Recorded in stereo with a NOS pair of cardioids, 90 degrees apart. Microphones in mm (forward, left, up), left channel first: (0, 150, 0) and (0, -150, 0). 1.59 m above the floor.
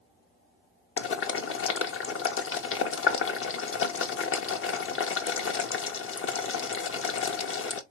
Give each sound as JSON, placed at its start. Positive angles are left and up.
{"t": 1.0, "sound": "boiling", "azimuth_deg": 45, "distance_m": 1.0}